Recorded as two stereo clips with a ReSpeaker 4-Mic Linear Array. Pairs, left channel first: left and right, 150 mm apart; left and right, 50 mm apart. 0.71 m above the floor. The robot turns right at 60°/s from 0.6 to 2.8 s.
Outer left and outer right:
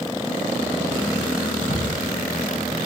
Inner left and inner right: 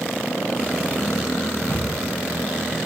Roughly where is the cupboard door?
Left.